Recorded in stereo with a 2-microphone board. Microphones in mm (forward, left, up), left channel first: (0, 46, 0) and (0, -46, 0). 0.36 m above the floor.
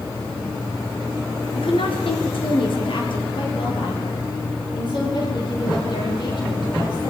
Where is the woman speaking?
70° left (ahead or behind), 4.5 m; by 7.1 s 55° left (ahead or behind), 13 m.